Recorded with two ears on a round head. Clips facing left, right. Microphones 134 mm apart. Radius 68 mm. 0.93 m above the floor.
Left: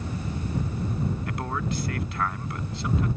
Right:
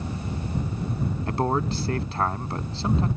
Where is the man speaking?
25° right (ahead or behind).